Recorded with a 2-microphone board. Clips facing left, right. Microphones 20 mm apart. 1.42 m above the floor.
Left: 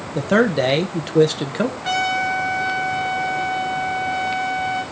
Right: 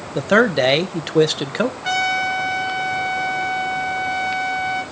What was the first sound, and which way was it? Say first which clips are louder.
A man speaking: right 2 dB; 25° right (ahead or behind).